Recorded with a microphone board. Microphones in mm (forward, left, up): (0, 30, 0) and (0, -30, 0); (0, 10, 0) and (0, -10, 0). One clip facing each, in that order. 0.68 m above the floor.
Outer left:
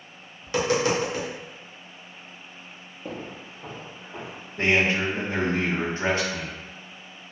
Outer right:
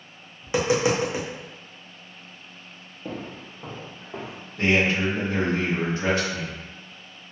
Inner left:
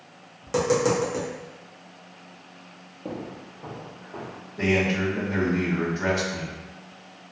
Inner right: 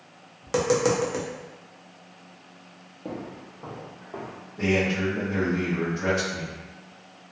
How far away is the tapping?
About 0.6 m.